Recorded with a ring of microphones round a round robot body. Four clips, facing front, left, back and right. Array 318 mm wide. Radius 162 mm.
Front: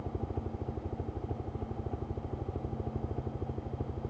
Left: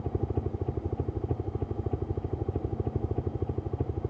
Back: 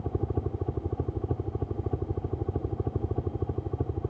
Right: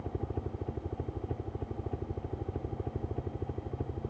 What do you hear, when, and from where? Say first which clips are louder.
0.0 s a helicopter: left 5 dB, back 6 dB; 145° left